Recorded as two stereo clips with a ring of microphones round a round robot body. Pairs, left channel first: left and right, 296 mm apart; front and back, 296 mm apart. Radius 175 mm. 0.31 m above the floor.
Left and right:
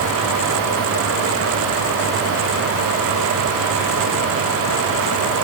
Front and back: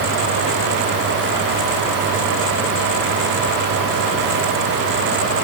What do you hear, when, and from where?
Only background noise.